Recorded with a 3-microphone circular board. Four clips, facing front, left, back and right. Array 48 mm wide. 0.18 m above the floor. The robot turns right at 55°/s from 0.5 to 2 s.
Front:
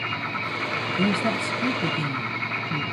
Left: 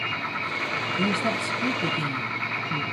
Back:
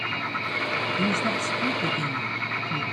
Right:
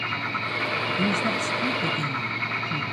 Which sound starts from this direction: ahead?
A woman speaking, at 1.0 s.